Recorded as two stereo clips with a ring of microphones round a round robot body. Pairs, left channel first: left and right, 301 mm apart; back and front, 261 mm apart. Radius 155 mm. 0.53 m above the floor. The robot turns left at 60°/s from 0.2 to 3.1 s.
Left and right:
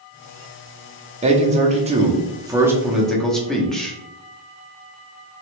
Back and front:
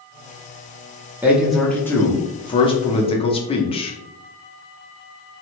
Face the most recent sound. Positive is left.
turn(degrees=175)